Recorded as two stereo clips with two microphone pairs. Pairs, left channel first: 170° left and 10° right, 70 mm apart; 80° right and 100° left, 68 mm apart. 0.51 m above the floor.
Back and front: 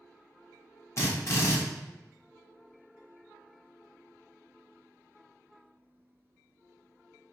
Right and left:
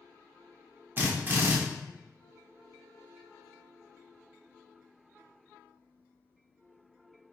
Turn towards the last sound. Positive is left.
turn(degrees=140)